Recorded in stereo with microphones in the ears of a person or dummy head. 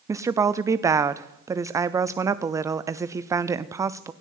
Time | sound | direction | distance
0.1 | a woman speaking | 20° right (ahead or behind) | 0.5 m